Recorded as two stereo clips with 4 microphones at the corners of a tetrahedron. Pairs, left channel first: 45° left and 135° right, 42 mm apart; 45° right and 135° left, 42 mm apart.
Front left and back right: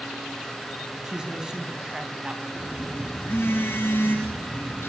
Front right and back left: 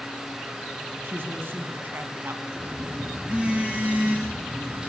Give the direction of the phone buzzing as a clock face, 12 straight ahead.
10 o'clock.